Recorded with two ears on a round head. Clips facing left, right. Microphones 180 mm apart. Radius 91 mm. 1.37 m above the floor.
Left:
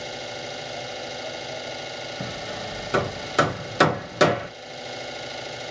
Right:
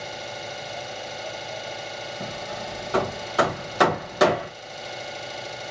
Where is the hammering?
25° left (ahead or behind), 1.1 m.